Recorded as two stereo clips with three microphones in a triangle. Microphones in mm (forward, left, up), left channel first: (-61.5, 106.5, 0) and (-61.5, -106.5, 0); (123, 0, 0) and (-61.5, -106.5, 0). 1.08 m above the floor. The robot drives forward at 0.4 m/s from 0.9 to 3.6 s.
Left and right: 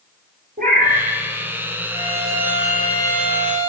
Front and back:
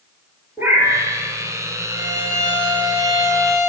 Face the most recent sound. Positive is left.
turn(degrees=-160)